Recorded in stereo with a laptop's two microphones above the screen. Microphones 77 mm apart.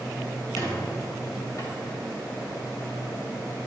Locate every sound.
0.6 s a squeak: 50° left (ahead or behind), 3.5 m